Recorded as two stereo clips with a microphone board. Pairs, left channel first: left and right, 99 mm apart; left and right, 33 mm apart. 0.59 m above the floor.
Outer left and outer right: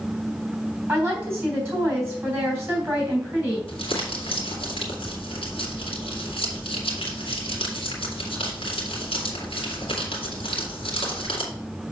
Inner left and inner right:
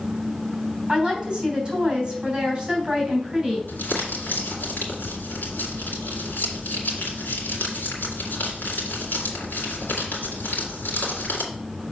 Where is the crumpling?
85° left, 2 m.